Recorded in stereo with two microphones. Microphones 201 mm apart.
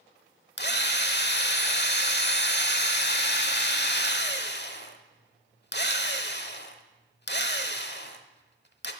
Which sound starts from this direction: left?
A drill, at 0.6 s.